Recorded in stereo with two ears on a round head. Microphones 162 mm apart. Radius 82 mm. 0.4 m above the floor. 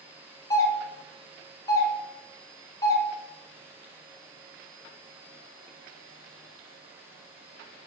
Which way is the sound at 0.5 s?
25° left (ahead or behind).